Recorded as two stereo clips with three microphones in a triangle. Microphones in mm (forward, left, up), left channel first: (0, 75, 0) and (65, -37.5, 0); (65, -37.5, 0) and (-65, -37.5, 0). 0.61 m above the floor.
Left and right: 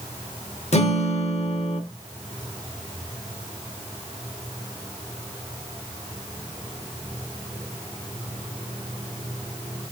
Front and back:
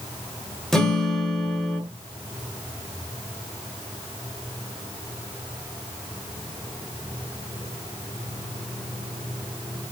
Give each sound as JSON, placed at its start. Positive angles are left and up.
{"t": 0.7, "sound": "a guitar", "azimuth_deg": 85, "distance_m": 0.6}